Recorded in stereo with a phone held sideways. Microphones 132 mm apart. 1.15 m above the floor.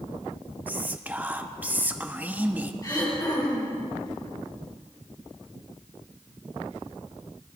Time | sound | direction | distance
0.7 | whispering | 15° right (ahead or behind) | 0.8 m
2.8 | throat clearing | 30° left (ahead or behind) | 3.5 m